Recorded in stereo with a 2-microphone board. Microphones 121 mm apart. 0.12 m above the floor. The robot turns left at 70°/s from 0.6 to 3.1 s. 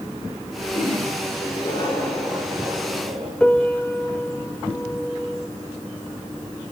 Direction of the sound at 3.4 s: 5° left (ahead or behind).